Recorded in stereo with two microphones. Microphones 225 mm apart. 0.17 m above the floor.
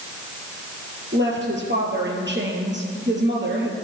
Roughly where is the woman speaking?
Right.